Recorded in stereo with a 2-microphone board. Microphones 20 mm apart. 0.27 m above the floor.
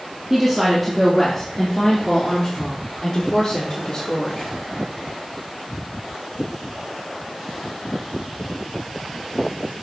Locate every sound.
0.3 s a woman speaking: 20° right (ahead or behind), 2.5 m; by 4.5 s 45° left (ahead or behind), 6 m